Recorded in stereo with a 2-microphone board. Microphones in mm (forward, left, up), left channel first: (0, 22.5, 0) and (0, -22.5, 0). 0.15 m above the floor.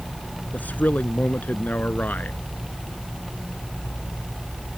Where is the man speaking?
40° left (ahead or behind).